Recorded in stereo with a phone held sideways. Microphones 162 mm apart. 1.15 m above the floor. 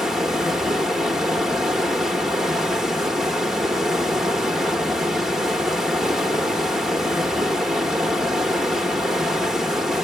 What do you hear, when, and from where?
0.0 s running water: centre (ahead or behind), 0.9 m